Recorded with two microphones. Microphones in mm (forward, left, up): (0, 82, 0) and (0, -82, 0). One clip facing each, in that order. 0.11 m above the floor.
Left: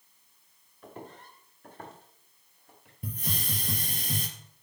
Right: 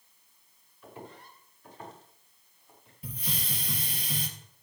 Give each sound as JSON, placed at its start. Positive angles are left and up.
{"t": 0.8, "sound": "footsteps", "side_deg": 45, "distance_m": 5.0}
{"t": 3.0, "sound": "a hiss", "side_deg": 50, "distance_m": 1.9}